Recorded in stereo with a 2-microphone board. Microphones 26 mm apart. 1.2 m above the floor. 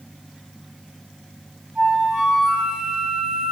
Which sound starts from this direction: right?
A flute, at 1.8 s.